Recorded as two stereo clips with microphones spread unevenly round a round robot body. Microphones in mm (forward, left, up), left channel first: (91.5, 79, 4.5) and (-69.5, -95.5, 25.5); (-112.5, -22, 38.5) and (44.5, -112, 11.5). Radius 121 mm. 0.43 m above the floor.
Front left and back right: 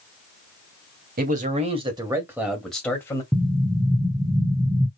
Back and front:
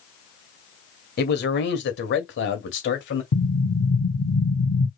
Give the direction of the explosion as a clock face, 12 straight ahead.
7 o'clock.